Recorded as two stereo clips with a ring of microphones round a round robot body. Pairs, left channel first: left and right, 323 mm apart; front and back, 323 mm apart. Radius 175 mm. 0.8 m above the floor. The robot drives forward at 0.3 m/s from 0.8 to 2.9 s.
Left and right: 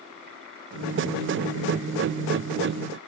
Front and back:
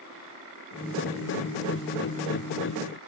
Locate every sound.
Only background noise.